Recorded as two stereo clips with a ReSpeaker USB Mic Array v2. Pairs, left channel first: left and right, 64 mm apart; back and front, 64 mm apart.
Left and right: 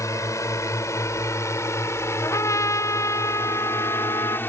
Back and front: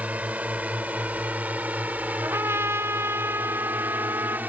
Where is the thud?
I don't hear a thud.